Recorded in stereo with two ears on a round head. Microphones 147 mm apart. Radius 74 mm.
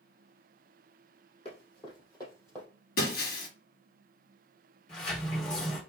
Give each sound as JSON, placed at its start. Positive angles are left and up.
{"t": 1.4, "sound": "running footsteps", "side_deg": 35, "distance_m": 3.5}
{"t": 3.0, "sound": "breaking glass", "side_deg": 60, "distance_m": 1.8}
{"t": 4.9, "sound": "a sliding door", "side_deg": 35, "distance_m": 3.0}